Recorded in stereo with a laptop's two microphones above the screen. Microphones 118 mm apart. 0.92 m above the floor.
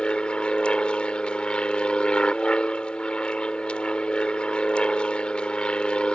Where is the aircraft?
10° left (ahead or behind).